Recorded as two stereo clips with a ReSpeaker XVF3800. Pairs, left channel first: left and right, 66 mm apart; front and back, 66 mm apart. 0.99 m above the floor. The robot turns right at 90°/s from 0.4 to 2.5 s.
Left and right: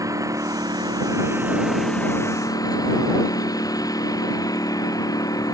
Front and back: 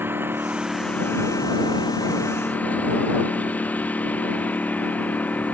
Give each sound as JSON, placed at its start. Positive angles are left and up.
{"t": 0.0, "sound": "a lawn mower", "azimuth_deg": -125}